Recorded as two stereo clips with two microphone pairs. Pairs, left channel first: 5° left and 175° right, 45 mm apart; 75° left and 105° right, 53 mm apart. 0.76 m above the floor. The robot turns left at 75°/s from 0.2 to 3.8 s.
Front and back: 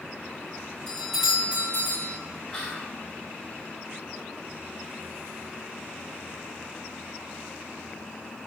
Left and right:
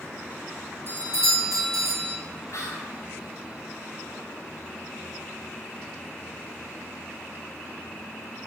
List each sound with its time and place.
0.9 s a doorbell: 65° right, 4.5 m; by 2.2 s 165° right, 4.5 m
2.5 s whispering: 85° left, 3.5 m; by 3.0 s 50° left, 3.5 m